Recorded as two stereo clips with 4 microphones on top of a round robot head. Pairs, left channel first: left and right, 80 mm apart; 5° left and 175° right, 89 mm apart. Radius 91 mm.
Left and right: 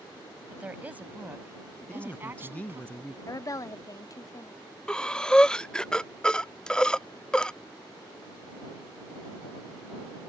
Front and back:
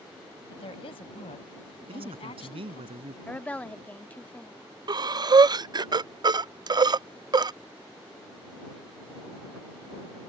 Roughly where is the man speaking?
Behind.